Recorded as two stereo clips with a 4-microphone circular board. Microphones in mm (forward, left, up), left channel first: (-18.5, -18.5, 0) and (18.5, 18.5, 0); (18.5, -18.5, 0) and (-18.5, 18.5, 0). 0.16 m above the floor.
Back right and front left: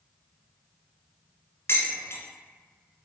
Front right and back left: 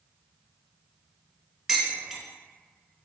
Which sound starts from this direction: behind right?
Dishes clattering, at 1.7 s.